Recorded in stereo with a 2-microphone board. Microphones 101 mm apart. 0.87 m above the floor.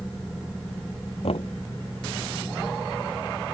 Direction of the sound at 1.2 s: 70° left (ahead or behind).